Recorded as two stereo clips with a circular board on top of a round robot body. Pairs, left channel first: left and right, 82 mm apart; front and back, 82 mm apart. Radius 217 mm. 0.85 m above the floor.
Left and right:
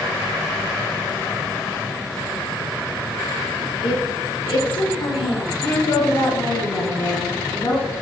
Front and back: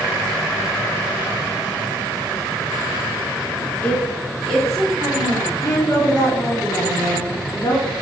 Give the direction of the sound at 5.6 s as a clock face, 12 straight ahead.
10 o'clock.